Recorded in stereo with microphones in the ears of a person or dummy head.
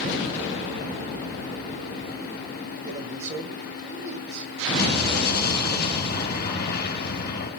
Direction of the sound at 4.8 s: 60° left (ahead or behind).